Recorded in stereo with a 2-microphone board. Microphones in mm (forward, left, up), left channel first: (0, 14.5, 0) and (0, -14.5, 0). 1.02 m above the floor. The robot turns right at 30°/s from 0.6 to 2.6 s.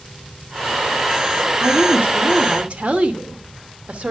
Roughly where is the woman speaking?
Right.